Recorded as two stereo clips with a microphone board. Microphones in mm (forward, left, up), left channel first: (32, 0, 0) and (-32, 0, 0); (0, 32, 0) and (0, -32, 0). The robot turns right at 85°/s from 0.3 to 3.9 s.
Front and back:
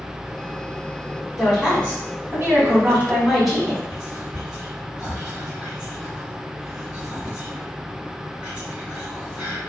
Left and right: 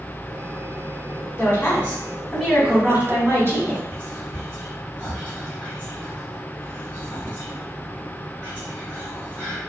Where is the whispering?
125° right, 1.1 m; by 9.6 s 120° right, 1.1 m.